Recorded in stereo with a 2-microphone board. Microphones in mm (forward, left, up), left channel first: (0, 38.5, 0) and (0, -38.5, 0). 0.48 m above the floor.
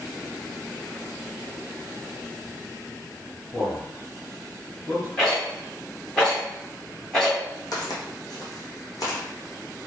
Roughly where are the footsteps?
Left.